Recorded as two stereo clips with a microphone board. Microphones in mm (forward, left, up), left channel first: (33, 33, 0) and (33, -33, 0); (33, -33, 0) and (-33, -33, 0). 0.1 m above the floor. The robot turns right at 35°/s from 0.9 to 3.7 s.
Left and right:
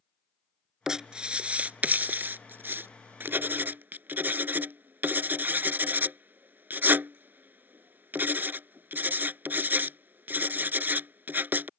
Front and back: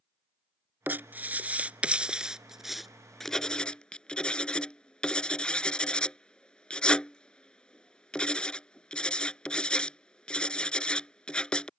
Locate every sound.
0.9 s writing: 160° right; by 11.7 s 65° right